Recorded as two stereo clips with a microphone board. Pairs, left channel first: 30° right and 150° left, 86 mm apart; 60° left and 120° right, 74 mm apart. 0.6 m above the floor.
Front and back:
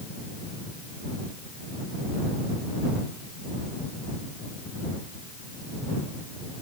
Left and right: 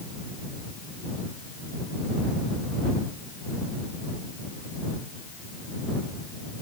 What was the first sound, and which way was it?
Only background noise.